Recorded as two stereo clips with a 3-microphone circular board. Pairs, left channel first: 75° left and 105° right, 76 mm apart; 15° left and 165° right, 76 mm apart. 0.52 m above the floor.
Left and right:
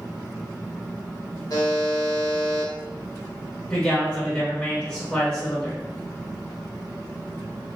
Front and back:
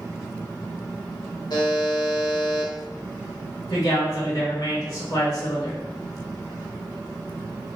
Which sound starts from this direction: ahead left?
A buzzer, at 1.5 s.